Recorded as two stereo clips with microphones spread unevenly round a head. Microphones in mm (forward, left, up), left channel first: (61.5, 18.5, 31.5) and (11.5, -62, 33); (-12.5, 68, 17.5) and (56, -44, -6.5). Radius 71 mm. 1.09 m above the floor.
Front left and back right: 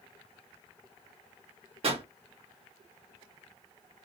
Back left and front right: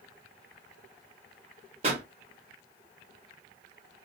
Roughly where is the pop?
Right.